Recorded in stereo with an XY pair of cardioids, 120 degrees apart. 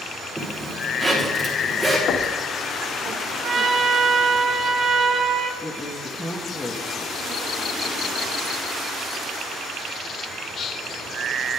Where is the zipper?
25° right, 3.5 m.